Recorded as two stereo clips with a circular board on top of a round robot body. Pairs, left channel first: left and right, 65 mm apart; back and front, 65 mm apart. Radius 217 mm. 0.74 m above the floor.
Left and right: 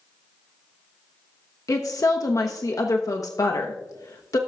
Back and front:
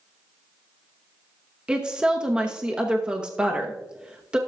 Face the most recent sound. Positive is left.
turn(degrees=75)